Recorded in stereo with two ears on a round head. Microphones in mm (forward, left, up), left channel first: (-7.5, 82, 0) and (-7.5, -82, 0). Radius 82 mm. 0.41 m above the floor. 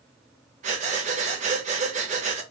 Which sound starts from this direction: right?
Breathing, at 0.6 s.